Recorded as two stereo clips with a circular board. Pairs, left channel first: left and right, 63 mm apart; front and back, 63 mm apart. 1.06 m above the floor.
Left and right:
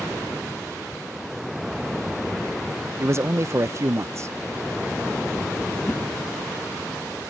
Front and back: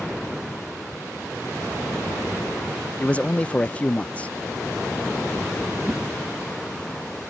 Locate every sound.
3.0 s a man speaking: 65° right, 0.5 m
5.8 s a whoosh: 135° left, 0.6 m